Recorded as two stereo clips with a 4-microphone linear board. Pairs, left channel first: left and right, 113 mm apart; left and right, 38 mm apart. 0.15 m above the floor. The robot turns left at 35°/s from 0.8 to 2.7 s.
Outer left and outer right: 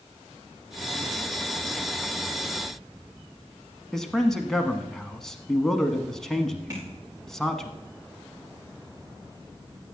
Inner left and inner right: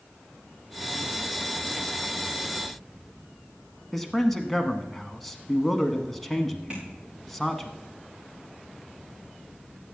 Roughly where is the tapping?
Right.